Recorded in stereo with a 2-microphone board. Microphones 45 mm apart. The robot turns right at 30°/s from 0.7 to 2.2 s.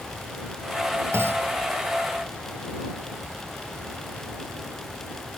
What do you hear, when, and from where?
1.1 s a clunk: 60° right (ahead or behind); by 1.5 s 50° right (ahead or behind)